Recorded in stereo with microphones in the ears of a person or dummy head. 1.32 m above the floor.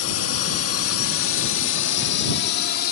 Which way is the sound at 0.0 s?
75° left (ahead or behind).